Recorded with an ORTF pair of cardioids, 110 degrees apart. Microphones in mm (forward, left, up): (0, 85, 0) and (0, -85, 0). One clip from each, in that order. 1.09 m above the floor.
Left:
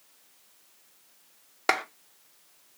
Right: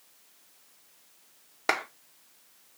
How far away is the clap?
About 0.8 m.